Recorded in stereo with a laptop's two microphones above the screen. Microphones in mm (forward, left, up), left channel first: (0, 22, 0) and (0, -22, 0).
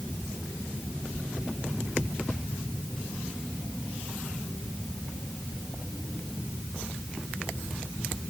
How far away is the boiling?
I don't hear boiling.